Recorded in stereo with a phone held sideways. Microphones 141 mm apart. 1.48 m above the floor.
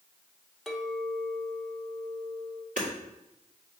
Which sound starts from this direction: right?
Hammering, at 2.8 s.